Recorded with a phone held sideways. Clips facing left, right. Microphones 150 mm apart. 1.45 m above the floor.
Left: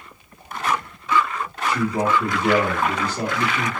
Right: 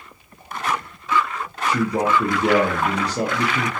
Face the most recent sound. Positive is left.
turn(degrees=-75)  # may be behind; listen again after turning